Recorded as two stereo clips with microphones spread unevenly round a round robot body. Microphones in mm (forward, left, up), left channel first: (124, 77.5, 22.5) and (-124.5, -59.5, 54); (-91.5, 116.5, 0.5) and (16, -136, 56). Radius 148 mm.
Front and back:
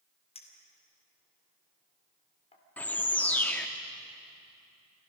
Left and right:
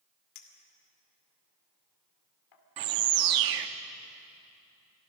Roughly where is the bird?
Ahead right.